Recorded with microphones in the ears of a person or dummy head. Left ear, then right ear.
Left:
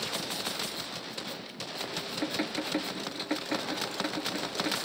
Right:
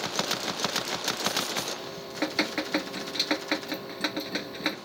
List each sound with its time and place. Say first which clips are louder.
1.8 s dripping: right 1 dB; 25° right (ahead or behind)